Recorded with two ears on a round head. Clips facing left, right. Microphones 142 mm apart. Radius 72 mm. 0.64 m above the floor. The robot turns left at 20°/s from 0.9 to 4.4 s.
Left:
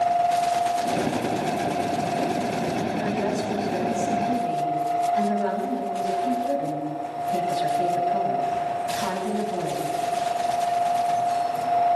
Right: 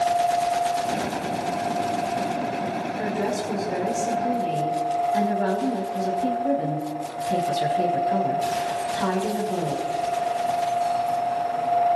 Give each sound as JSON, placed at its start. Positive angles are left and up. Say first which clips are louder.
{"t": 3.0, "sound": "a woman speaking", "louder": "left 1 dB", "side_deg": -55, "distance_m": 5.0}